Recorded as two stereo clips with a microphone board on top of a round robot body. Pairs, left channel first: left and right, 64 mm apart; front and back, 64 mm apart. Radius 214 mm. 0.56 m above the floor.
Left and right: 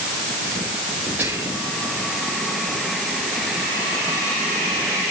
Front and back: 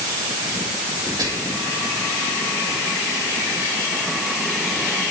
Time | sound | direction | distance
1.2 | whispering | 150° right | 5 m